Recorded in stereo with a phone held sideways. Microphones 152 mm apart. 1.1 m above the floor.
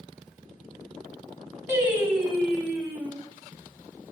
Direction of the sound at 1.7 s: 15° right (ahead or behind).